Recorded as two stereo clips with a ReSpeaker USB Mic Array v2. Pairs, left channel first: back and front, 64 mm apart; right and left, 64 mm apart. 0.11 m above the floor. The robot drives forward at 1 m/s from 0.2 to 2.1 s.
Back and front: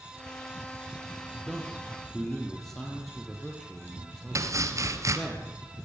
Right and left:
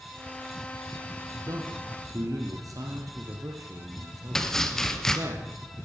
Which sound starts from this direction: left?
A man speaking, at 1.5 s.